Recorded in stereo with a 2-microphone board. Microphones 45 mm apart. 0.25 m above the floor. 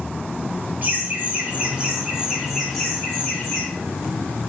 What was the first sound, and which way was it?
Laughter, 40° right (ahead or behind).